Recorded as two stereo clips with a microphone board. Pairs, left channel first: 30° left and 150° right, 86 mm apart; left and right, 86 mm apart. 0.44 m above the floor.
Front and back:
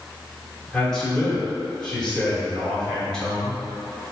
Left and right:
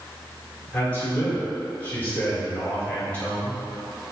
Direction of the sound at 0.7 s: 95° left.